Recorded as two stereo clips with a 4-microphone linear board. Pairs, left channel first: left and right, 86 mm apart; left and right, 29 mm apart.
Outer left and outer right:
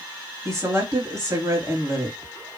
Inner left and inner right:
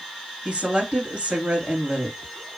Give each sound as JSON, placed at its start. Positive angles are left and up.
{"t": 0.5, "sound": "a woman speaking", "side_deg": -40, "distance_m": 2.5}